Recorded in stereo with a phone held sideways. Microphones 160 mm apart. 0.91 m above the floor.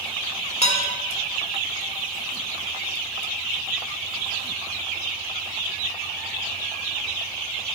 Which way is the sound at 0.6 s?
40° left (ahead or behind).